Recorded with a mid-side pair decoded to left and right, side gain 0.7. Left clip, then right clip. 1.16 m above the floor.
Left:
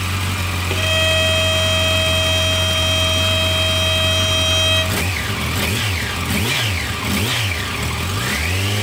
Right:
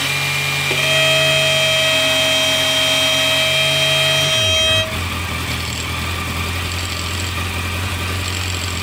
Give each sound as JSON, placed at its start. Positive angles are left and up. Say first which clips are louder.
{"t": 0.7, "sound": "a violin", "louder": "right 2 dB", "azimuth_deg": -10}